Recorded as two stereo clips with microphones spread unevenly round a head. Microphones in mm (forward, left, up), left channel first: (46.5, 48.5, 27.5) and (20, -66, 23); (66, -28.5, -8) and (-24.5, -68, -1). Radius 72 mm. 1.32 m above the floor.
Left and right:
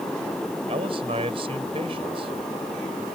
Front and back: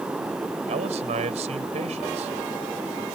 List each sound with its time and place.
0.7 s a man speaking: 160° right